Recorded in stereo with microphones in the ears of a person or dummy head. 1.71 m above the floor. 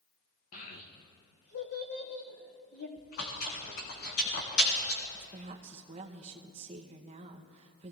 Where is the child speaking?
45° left (ahead or behind), 1.4 m; by 2.9 s 65° left (ahead or behind), 3 m.